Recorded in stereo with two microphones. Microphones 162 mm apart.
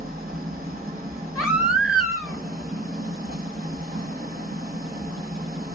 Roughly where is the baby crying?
Centre.